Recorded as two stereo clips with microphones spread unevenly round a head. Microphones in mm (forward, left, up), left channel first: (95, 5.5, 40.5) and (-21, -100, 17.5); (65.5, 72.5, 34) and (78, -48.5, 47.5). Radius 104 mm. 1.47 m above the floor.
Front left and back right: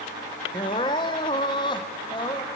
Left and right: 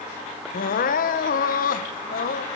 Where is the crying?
110° left, 0.9 m.